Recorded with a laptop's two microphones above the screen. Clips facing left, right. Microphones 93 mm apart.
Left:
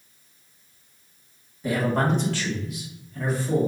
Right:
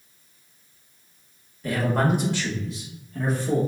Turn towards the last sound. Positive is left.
turn(degrees=-55)  # may be behind; listen again after turning